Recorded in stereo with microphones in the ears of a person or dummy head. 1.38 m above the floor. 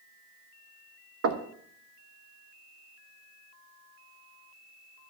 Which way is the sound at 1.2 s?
70° right (ahead or behind).